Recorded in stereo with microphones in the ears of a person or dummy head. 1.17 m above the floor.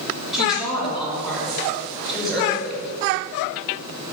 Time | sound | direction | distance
0.3 | a woman speaking | centre (ahead or behind) | 4.5 m